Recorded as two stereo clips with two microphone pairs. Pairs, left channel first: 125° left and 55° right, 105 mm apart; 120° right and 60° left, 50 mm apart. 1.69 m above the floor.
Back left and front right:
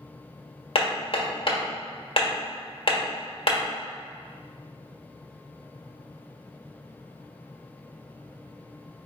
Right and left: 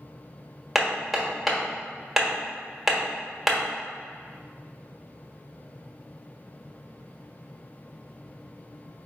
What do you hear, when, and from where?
0.8 s hammering: 150° left, 1.3 m